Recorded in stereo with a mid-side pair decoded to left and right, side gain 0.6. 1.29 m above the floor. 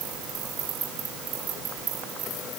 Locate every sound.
Only background noise.